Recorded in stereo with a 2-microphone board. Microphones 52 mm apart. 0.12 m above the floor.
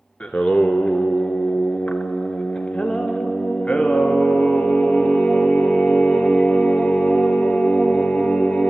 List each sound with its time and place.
0.2 s singing: 25° left (ahead or behind), 0.6 m